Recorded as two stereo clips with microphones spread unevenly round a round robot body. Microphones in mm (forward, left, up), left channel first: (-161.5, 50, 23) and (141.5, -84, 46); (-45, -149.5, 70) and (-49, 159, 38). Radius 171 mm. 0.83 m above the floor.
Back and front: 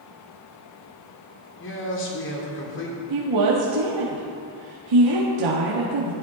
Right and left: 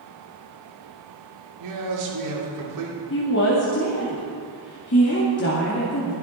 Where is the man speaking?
105° left, 3 m.